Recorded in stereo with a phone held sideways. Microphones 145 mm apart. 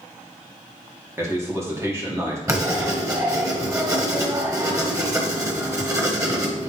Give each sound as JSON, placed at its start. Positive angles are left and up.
{"t": 1.2, "sound": "a man speaking", "side_deg": -20, "distance_m": 2.0}
{"t": 2.5, "sound": "writing", "side_deg": -20, "distance_m": 1.4}